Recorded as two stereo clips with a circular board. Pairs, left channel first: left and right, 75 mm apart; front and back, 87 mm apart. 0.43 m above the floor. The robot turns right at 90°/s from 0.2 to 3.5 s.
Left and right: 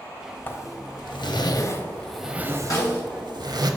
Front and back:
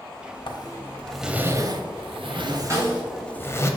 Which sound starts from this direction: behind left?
A snare drum, at 2.7 s.